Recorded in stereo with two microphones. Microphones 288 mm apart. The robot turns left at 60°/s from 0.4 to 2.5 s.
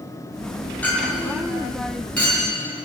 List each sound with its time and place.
0.8 s a clink: 5° left (ahead or behind), 4 m; by 2.9 s 75° left (ahead or behind), 4 m